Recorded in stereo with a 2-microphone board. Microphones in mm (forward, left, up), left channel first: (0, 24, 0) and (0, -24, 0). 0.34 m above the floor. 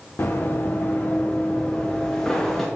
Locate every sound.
0.2 s running footsteps: 50° left (ahead or behind), 1.7 m; by 2.6 s 10° left (ahead or behind), 2.5 m